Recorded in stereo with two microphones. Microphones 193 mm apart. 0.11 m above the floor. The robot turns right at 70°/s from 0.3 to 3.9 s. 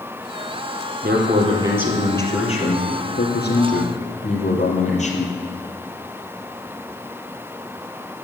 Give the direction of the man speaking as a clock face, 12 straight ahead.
2 o'clock.